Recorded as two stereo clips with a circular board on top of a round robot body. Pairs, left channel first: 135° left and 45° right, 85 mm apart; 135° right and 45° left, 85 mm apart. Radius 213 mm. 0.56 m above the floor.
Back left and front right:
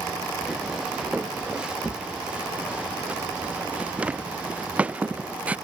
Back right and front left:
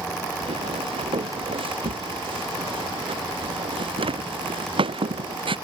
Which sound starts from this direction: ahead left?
Footsteps, at 0.4 s.